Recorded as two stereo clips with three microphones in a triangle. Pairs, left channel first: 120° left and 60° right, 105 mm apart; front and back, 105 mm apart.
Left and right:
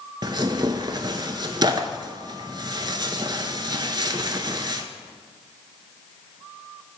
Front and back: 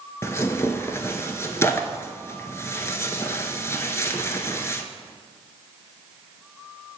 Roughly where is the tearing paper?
Ahead right.